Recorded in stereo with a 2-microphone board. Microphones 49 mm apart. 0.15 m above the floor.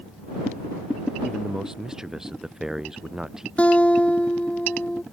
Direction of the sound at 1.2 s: 10° right (ahead or behind).